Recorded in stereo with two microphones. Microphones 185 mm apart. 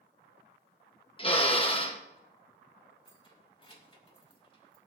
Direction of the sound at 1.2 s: 25° left (ahead or behind).